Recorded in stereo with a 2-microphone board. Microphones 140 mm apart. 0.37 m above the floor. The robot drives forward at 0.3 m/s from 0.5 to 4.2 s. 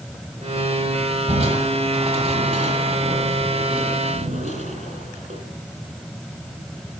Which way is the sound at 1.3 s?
60° right (ahead or behind).